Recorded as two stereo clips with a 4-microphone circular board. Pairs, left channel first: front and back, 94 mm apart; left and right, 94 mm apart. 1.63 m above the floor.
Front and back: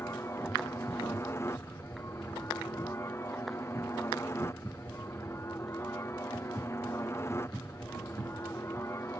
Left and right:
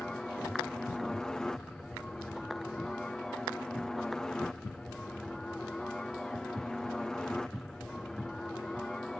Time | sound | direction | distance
0.0 | a helicopter | 15° left | ?